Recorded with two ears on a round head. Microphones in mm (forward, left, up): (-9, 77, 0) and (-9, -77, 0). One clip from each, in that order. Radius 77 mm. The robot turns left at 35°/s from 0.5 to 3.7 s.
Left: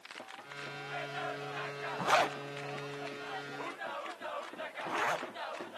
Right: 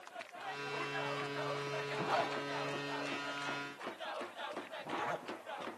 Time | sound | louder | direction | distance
2.0 | a zipper | left 7 dB | 60° left (ahead or behind) | 0.8 m